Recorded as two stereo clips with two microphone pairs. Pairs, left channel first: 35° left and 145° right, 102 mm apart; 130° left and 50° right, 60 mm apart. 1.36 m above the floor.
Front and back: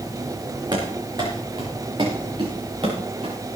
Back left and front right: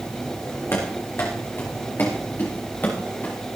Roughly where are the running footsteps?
Behind.